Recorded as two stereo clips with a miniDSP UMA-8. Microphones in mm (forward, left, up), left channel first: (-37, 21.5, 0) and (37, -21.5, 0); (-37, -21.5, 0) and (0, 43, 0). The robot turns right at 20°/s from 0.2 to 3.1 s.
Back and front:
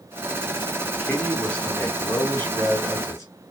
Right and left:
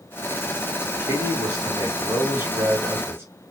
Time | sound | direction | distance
1.0 | a man speaking | 70° left | 2 m